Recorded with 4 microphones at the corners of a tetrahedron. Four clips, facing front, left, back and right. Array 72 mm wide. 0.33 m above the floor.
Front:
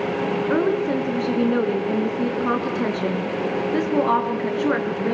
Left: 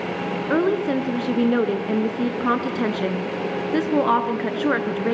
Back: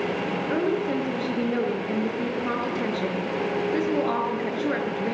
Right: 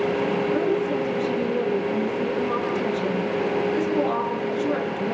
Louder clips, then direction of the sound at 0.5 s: Left 2 dB, front 3 dB; 70° left.